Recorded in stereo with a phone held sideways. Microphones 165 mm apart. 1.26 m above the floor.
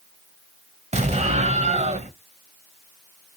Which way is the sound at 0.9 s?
40° right (ahead or behind).